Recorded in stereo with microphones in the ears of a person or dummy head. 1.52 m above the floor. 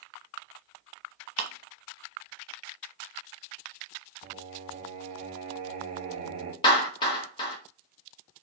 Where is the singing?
35° right (ahead or behind), 0.6 m.